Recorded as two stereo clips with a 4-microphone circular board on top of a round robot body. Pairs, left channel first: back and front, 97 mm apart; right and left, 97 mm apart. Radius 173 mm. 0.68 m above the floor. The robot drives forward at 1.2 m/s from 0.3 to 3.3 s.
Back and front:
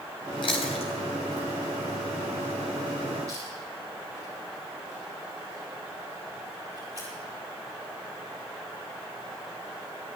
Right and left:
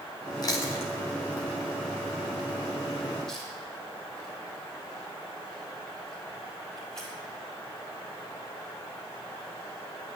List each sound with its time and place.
0.4 s chewing: 140° right, 0.8 m; by 7.1 s 175° right, 4 m